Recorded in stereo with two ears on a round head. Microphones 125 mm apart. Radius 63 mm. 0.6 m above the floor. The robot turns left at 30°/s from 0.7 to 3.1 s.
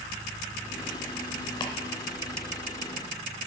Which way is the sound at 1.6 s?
30° left (ahead or behind).